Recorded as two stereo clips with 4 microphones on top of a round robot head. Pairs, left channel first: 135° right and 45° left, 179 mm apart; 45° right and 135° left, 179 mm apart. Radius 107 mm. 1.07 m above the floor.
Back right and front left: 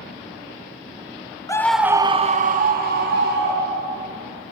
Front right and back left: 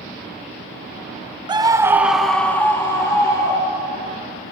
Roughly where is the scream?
Behind.